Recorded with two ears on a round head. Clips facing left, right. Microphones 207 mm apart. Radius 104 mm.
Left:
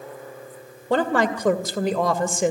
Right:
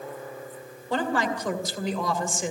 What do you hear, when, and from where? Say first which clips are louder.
0.9 s a woman speaking: left 6 dB; 50° left (ahead or behind), 2.5 m